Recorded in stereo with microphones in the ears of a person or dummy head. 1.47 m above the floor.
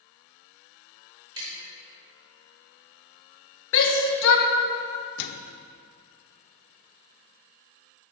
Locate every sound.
1.4 s tapping: 25° right (ahead or behind), 3.5 m
3.7 s a shout: 65° left (ahead or behind), 1.7 m
5.2 s a microwave: 60° left (ahead or behind), 0.5 m